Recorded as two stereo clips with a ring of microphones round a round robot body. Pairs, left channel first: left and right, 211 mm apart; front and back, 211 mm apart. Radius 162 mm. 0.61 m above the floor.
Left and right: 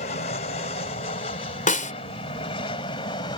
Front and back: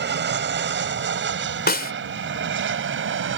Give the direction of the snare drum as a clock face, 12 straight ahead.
11 o'clock.